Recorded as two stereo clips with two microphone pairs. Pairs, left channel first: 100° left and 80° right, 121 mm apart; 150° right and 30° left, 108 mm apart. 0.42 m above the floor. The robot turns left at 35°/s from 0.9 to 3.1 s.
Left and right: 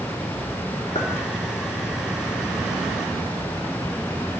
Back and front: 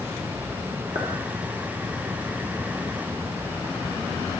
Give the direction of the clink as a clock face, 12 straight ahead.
10 o'clock.